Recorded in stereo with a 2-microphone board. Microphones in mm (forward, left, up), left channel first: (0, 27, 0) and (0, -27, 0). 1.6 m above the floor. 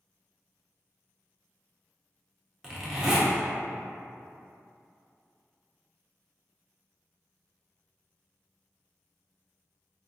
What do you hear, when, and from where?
2.6 s a zipper: 10° right (ahead or behind), 0.7 m